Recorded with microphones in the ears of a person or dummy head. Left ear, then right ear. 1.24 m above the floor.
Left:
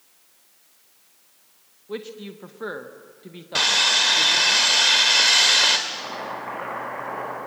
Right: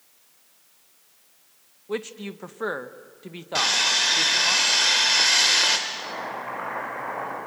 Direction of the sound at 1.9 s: 30° right (ahead or behind).